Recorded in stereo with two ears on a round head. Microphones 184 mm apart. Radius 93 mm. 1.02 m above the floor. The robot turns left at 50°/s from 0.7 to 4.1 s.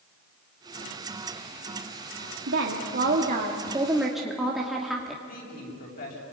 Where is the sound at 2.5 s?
95° right, 2.5 m; by 5.2 s straight behind, 2.5 m.